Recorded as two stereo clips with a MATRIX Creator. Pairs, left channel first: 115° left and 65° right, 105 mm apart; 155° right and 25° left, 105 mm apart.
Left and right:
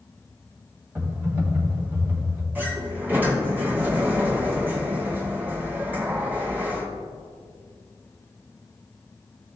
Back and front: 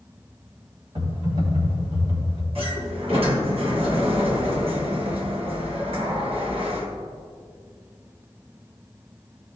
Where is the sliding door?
5° left, 1.8 m.